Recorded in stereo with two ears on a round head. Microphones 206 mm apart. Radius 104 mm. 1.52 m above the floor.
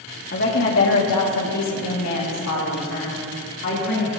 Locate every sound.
0.3 s a woman speaking: 50° left (ahead or behind), 3 m; by 4.1 s 60° left (ahead or behind), 4 m